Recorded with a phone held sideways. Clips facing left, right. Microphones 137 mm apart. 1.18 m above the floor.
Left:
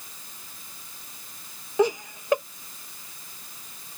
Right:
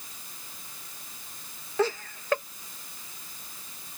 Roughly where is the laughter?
Centre.